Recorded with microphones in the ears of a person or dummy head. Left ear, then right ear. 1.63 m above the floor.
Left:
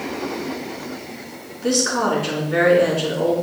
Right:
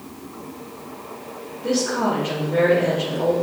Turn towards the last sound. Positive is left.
turn(degrees=75)  # may be behind; listen again after turning